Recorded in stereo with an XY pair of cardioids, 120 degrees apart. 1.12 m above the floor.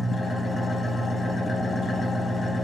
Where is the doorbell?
I don't hear a doorbell.